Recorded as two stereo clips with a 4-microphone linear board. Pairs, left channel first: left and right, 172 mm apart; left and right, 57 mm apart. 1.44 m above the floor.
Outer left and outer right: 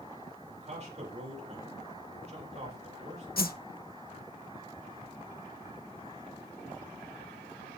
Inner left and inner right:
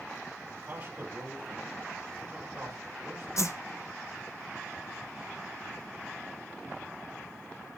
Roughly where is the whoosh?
Left.